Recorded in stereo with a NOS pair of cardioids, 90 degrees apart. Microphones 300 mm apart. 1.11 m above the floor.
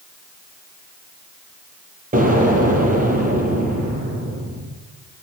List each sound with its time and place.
2.1 s an explosion: 25° right, 7.5 m